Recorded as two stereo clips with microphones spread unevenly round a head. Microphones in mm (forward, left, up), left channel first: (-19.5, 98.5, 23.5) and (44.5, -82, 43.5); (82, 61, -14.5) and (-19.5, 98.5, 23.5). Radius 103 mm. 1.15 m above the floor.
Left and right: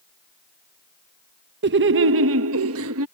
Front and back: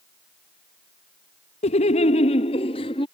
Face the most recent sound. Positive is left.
turn(degrees=-75)